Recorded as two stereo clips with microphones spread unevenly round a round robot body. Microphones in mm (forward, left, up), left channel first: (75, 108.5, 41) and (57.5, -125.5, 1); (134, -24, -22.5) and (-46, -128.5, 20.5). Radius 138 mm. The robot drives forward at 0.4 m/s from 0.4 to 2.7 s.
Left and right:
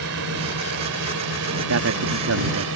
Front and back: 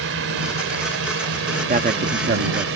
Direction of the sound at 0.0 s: 140° right.